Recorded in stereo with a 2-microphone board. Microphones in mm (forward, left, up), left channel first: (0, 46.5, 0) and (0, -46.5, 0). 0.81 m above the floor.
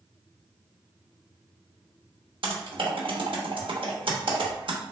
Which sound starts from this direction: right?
Typing on a keyboard, at 2.4 s.